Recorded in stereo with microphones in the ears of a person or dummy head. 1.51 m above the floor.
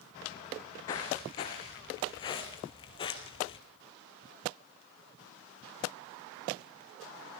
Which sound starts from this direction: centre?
Footsteps, at 0.9 s.